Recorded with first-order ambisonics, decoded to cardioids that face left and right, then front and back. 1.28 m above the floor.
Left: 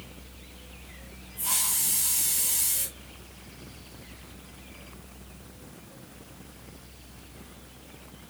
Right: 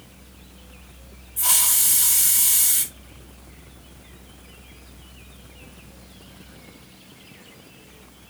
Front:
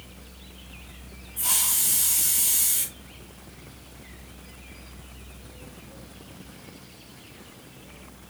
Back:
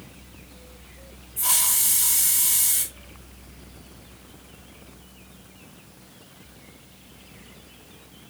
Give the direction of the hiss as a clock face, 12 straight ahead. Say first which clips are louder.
Right 7 dB, back 2 dB; 3 o'clock.